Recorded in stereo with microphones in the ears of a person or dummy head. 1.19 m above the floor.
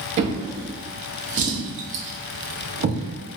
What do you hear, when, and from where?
0.2 s a drawer: 40° right (ahead or behind), 0.6 m